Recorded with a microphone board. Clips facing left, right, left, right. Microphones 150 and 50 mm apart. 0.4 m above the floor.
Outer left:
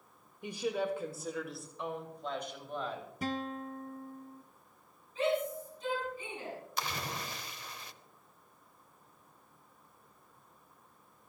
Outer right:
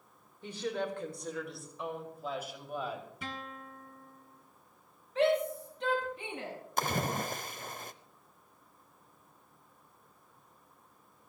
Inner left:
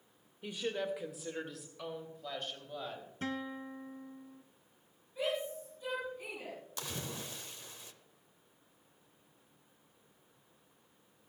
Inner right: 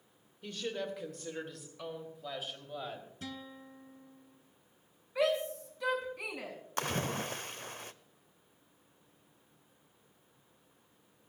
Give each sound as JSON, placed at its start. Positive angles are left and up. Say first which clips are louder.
{"t": 0.4, "sound": "a woman speaking", "louder": "outer left 2 dB, inner left 1 dB", "side_deg": 15, "distance_m": 1.3}
{"t": 3.2, "sound": "a guitar", "louder": "outer left 7 dB, inner left 11 dB", "side_deg": 40, "distance_m": 0.8}
{"t": 5.2, "sound": "a shout", "louder": "outer right 4 dB, inner right 5 dB", "side_deg": -80, "distance_m": 7.0}
{"t": 6.8, "sound": "a splash", "louder": "outer right 8 dB, inner right 10 dB", "side_deg": -50, "distance_m": 0.6}